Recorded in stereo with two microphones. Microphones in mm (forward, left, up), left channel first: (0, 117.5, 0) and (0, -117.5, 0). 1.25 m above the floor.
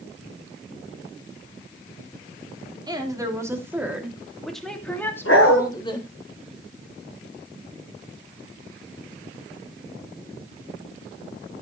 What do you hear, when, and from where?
2.9 s a woman speaking: 15° right (ahead or behind), 3 m; by 6.1 s 20° left (ahead or behind), 2.5 m
5.2 s a dog barking: 65° left (ahead or behind), 6 m